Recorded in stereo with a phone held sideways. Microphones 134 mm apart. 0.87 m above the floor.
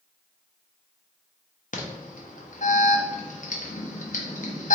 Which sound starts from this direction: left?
An alarm, at 1.7 s.